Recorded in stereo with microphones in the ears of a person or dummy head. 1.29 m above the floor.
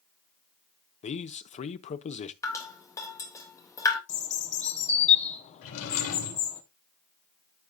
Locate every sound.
1.0 s a man speaking: 35° left (ahead or behind), 0.8 m
2.4 s dripping: 15° left (ahead or behind), 1.6 m
4.1 s a bird: 35° left (ahead or behind), 1.3 m
5.6 s a drawer: 75° left (ahead or behind), 3.5 m